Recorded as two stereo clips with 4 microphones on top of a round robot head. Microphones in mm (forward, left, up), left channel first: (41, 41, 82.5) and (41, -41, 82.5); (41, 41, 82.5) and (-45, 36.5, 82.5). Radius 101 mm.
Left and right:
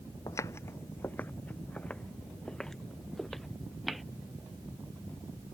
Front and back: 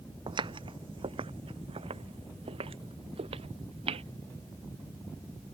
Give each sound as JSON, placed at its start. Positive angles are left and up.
{"t": 0.3, "sound": "footsteps", "azimuth_deg": 150}